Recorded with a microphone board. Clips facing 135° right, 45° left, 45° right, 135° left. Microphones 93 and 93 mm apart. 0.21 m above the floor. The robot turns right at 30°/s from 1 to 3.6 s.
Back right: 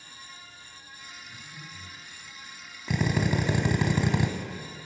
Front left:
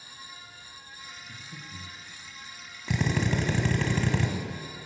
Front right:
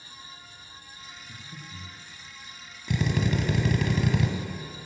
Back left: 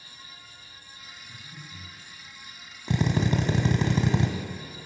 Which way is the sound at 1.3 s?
5° right.